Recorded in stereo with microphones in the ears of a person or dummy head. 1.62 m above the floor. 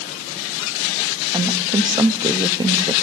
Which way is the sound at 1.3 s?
15° right (ahead or behind).